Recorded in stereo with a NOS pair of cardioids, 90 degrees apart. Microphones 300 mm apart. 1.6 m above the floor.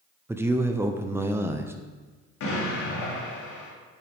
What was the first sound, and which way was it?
A man speaking, 10° right.